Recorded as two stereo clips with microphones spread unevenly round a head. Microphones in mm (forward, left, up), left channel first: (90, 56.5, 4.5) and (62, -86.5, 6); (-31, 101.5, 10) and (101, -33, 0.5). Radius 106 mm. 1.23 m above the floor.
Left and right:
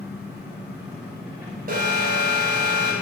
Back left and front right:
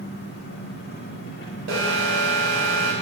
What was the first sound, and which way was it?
An engine running, straight behind.